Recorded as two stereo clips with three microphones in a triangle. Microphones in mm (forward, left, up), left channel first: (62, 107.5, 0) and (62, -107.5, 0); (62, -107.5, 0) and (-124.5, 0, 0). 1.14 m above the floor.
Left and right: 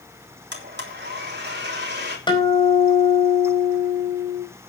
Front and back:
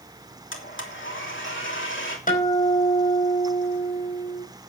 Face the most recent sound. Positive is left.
turn(degrees=20)